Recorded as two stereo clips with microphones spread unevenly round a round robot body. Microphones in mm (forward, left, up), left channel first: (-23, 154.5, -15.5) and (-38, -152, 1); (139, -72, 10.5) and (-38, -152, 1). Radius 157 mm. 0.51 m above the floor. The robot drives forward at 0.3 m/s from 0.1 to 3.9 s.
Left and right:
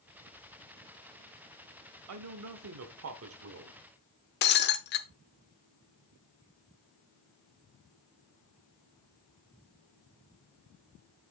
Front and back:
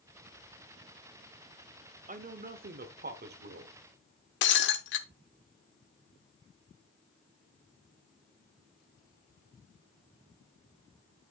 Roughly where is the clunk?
No clunk in this recording.